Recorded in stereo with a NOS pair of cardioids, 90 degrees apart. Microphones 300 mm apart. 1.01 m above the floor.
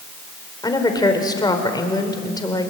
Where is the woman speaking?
15° left, 4.5 m.